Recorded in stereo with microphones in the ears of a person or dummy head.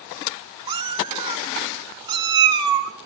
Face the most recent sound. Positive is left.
turn(degrees=-20)  # may be behind; listen again after turning